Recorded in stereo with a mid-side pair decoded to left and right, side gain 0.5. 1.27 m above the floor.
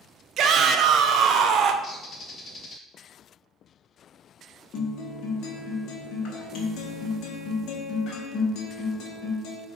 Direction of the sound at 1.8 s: 40° left.